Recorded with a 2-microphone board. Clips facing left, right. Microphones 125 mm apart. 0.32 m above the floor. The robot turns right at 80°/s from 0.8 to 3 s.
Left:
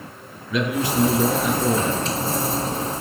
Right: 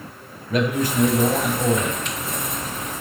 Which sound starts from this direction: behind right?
A man speaking, at 0.5 s.